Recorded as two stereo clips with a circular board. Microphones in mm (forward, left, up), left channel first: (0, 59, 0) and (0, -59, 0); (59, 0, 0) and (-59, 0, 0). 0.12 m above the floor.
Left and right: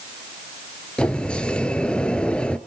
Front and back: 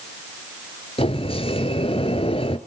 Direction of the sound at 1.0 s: 10° left.